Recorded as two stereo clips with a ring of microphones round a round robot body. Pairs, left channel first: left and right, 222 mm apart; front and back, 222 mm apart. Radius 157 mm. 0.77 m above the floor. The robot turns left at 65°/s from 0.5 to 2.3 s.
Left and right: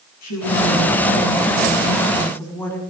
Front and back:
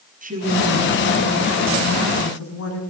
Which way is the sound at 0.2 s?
125° left.